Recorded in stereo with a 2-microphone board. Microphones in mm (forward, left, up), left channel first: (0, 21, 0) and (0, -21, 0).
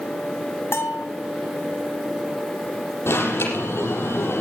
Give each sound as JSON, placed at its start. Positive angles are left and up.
{"t": 0.7, "sound": "a bell", "side_deg": 70, "distance_m": 1.6}
{"t": 3.1, "sound": "an alarm", "side_deg": 75, "distance_m": 5.5}